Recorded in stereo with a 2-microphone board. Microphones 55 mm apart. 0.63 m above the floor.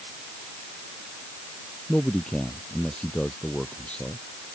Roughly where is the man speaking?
Centre.